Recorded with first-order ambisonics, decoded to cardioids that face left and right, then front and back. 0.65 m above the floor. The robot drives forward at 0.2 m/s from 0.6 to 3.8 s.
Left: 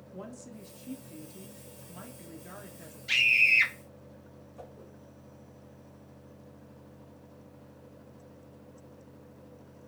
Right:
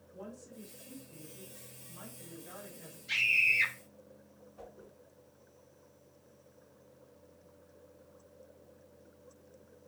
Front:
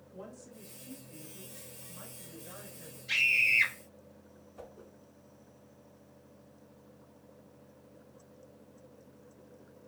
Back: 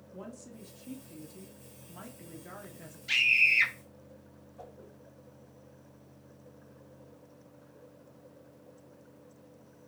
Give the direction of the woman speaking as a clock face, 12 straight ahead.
8 o'clock.